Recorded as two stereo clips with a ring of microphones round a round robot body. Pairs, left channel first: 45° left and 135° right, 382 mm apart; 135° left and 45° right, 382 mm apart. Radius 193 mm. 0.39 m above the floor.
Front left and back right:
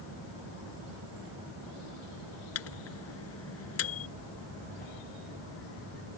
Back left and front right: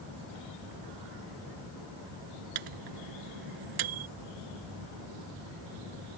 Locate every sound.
2.5 s a microwave: 10° right